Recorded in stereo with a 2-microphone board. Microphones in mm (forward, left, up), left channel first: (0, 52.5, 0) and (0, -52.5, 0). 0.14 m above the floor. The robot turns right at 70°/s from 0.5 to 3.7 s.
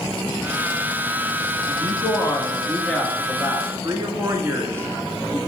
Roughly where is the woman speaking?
Left.